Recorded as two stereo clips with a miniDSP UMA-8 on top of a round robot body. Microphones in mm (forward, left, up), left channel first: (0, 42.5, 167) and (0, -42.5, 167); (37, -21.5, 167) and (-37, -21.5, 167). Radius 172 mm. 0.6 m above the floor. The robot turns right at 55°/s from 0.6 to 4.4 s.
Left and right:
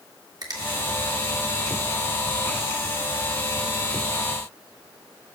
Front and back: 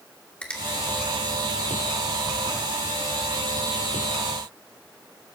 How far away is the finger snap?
About 1.6 m.